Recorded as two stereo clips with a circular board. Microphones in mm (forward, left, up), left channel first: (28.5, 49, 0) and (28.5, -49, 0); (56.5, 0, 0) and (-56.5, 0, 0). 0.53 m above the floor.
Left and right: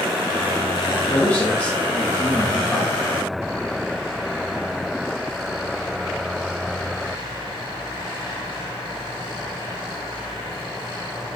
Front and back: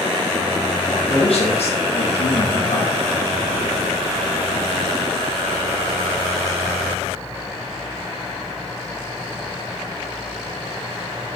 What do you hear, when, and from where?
0.9 s a man speaking: 30° left, 4 m